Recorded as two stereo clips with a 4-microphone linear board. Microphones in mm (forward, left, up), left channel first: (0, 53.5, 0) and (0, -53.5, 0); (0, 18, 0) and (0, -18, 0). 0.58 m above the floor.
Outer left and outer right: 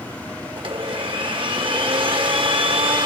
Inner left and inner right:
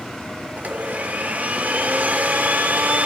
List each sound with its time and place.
0.6 s a blender: 50° right (ahead or behind), 1.4 m